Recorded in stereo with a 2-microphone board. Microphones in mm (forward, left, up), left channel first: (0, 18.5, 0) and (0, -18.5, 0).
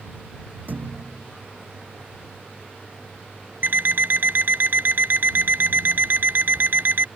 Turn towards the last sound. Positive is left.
turn(degrees=-65)  # may be behind; listen again after turning